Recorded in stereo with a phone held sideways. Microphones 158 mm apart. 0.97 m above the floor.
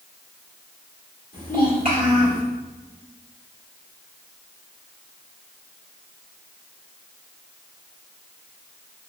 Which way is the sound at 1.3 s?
75° left (ahead or behind).